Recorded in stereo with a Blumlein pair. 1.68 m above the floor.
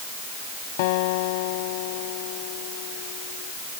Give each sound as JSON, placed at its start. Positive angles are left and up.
{"t": 0.8, "sound": "a guitar", "azimuth_deg": 50}